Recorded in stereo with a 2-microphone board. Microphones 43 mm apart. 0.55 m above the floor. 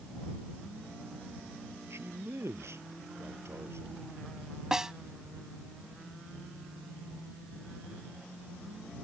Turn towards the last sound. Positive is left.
turn(degrees=-10)  # may be behind; listen again after turning